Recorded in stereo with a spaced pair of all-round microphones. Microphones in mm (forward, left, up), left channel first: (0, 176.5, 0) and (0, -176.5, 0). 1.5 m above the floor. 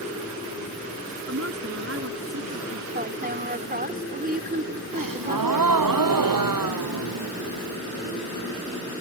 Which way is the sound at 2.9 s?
25° right (ahead or behind).